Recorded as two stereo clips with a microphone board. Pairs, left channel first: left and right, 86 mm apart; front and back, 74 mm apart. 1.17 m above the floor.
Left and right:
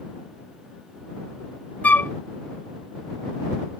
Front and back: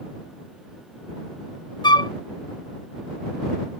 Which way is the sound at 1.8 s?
20° left.